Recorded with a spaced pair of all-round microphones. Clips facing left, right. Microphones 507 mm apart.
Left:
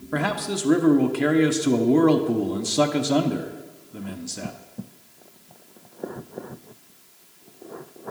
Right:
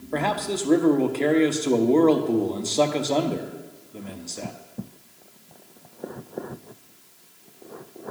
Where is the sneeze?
I don't hear a sneeze.